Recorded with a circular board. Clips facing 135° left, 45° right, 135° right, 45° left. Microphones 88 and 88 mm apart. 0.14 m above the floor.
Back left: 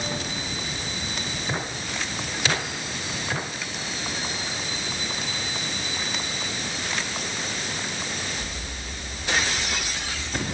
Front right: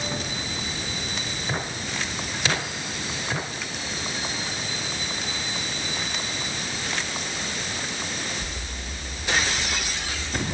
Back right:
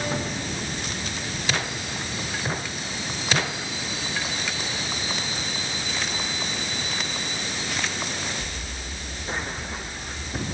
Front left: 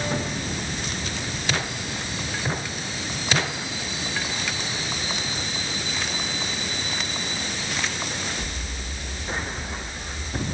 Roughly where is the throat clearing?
I don't hear throat clearing.